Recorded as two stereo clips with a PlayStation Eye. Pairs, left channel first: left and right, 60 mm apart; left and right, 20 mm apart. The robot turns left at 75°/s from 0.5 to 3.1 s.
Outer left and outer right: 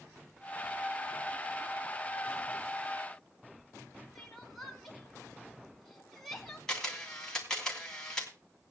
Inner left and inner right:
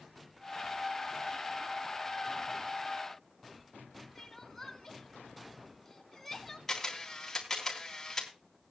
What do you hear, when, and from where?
4.2 s crying: 5° left (ahead or behind), 2.5 m
6.7 s a camera shutter: 10° left (ahead or behind), 3.5 m